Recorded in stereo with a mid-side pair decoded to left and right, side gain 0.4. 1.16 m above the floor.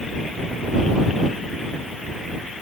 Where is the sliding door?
No sliding door in this recording.